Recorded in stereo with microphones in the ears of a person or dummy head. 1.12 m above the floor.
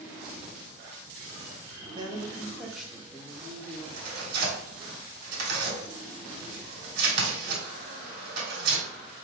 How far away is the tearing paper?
About 3 m.